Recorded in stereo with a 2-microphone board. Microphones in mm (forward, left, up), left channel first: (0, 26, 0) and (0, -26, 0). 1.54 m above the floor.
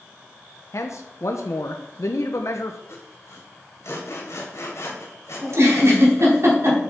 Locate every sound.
0.7 s a man speaking: 70° left (ahead or behind), 0.9 m
2.9 s sawing: 65° left (ahead or behind), 2.5 m
5.4 s a giggle: 65° right (ahead or behind), 4.5 m